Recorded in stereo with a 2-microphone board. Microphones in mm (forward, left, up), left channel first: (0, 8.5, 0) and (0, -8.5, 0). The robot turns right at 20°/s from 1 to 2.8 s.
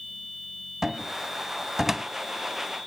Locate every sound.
0.8 s a cupboard door: 20° right (ahead or behind), 0.6 m; by 2.1 s 15° right (ahead or behind), 0.6 m